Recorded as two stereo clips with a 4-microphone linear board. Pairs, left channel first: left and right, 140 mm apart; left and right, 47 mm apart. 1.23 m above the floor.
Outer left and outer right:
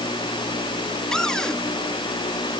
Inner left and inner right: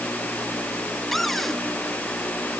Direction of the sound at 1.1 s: 5° left (ahead or behind).